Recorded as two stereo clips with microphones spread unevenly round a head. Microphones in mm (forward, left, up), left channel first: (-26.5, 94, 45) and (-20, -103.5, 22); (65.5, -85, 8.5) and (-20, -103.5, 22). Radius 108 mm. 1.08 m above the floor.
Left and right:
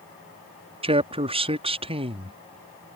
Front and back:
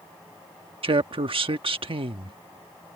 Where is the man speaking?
150° right.